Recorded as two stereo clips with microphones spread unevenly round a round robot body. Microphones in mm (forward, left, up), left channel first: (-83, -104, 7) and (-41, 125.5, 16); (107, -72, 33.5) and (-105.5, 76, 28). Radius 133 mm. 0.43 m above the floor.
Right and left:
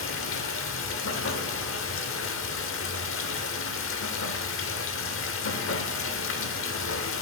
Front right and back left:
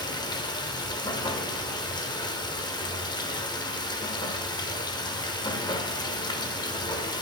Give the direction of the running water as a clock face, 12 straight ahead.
4 o'clock.